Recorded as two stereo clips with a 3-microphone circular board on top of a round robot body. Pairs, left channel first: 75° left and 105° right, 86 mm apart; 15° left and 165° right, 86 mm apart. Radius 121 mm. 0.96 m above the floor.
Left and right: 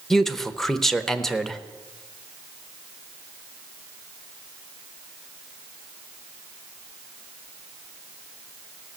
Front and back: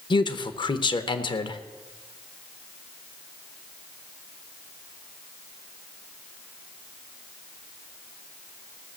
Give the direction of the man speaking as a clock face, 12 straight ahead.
12 o'clock.